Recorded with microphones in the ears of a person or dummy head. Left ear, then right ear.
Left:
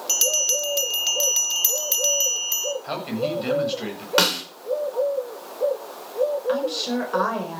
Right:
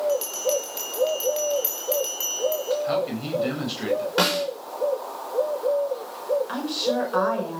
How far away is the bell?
About 1.5 m.